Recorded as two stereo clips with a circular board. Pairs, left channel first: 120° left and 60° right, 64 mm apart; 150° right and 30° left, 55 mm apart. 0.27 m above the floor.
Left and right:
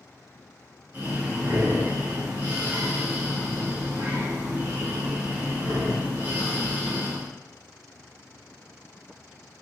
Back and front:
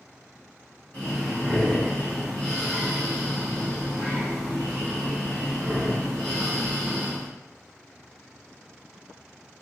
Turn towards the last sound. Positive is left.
turn(degrees=-90)